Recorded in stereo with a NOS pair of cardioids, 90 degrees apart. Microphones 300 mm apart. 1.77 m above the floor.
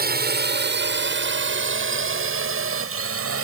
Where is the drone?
30° right; by 3.5 s 50° right.